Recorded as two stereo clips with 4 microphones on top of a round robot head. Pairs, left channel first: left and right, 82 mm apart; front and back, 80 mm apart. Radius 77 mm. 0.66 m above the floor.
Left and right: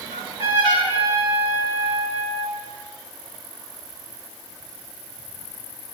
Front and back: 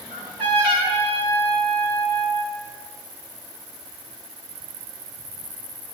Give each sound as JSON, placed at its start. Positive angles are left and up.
{"t": 0.1, "sound": "a trumpet", "azimuth_deg": -150, "distance_m": 8.0}